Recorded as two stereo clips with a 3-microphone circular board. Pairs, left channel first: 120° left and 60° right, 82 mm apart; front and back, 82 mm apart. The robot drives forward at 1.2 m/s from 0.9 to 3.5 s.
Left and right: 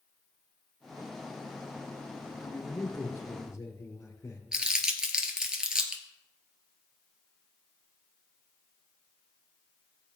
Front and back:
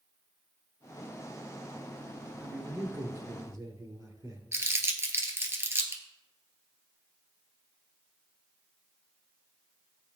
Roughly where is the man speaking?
Behind left.